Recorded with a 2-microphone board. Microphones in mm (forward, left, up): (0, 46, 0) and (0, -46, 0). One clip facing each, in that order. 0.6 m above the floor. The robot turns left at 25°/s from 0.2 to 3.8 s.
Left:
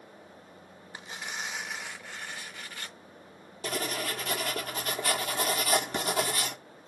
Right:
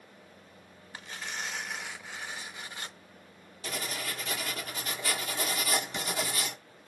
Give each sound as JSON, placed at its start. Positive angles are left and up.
{"t": 0.9, "sound": "tearing paper", "azimuth_deg": 25, "distance_m": 0.7}
{"t": 3.6, "sound": "writing", "side_deg": 50, "distance_m": 1.5}